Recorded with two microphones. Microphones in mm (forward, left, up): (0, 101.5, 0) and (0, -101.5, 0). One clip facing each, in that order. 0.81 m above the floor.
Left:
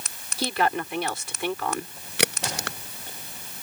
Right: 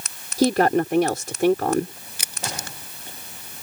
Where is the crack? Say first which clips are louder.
Left 7 dB; 80° left.